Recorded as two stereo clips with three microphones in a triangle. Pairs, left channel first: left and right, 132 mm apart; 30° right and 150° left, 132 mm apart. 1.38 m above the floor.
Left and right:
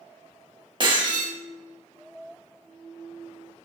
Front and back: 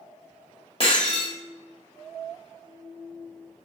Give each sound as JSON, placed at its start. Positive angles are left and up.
{"t": 0.8, "sound": "breaking glass", "azimuth_deg": -55, "distance_m": 1.1}